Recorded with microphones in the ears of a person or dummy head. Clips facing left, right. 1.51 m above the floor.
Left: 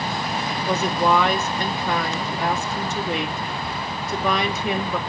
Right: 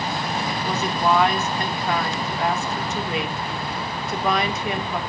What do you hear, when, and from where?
0.7 s a woman speaking: 80° left, 1.8 m